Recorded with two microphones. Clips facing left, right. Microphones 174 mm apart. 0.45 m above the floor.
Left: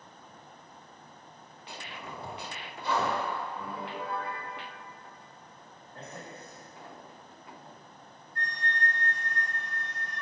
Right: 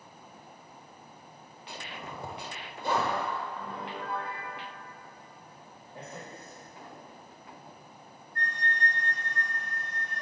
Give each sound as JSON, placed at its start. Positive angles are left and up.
{"t": 1.8, "sound": "a zipper", "side_deg": -50, "distance_m": 1.3}
{"t": 3.6, "sound": "a piano", "side_deg": 10, "distance_m": 1.4}
{"t": 5.9, "sound": "a man speaking", "side_deg": -25, "distance_m": 1.6}
{"t": 8.3, "sound": "a flute", "side_deg": -60, "distance_m": 2.0}